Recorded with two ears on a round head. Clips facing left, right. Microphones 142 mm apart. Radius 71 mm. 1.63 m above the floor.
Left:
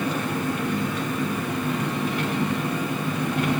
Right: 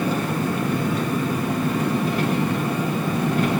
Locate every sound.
0.0 s an engine running: 30° right (ahead or behind), 1.1 m